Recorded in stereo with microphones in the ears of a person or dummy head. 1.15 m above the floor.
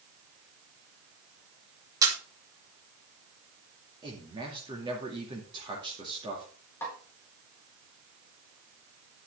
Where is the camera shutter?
20° right (ahead or behind), 2.5 m.